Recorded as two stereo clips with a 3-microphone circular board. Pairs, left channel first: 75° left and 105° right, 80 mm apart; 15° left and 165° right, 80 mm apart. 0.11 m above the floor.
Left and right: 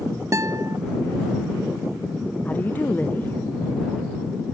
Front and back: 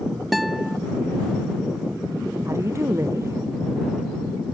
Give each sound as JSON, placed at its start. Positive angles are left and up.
{"t": 0.3, "sound": "a guitar", "azimuth_deg": -75}
{"t": 2.5, "sound": "a woman speaking", "azimuth_deg": 140}